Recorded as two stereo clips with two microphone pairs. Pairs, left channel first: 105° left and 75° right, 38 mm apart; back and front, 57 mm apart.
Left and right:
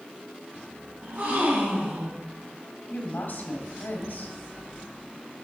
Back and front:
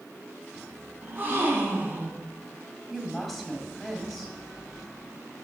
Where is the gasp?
50° right, 1.9 m.